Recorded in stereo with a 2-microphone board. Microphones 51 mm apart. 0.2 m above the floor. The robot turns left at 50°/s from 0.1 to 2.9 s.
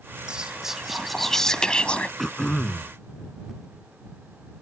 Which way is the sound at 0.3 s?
145° right.